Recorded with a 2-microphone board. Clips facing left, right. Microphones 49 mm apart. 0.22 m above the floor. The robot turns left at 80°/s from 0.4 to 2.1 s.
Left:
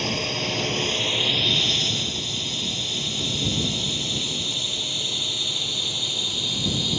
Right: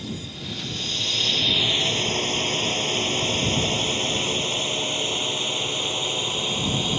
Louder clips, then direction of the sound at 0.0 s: Left 8 dB; 70° left (ahead or behind).